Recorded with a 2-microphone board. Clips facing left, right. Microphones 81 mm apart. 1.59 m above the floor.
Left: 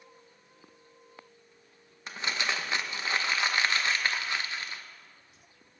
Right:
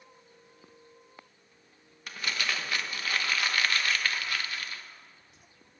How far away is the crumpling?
About 0.8 m.